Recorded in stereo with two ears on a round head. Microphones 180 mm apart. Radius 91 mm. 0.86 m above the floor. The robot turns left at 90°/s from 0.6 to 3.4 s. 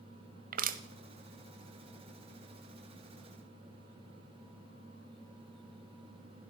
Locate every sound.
0.5 s crushing: 45° right (ahead or behind), 0.9 m